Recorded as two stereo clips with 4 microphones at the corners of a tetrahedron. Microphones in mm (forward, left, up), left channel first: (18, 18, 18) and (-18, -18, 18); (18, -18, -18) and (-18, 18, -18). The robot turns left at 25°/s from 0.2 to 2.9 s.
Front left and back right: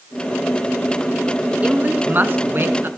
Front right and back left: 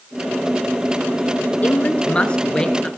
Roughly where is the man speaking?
Right.